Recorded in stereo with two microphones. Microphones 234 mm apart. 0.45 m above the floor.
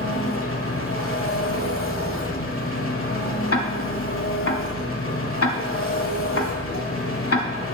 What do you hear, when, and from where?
0.0 s an engine running: 65° left (ahead or behind), 1.1 m
3.5 s ticking: 85° left, 1.0 m